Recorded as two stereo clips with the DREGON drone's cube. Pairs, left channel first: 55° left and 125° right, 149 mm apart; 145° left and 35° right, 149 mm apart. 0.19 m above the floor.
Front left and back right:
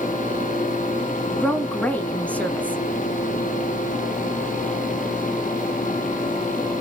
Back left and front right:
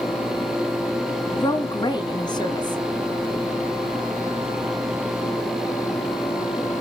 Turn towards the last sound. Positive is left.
turn(degrees=125)